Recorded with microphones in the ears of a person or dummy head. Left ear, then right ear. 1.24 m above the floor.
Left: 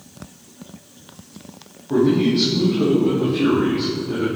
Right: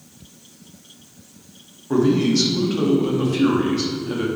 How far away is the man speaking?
About 2.0 m.